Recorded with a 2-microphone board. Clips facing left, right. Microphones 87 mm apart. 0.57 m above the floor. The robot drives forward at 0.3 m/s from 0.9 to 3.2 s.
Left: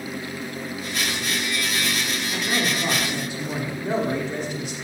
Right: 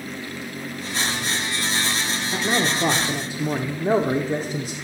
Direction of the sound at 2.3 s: 35° right (ahead or behind).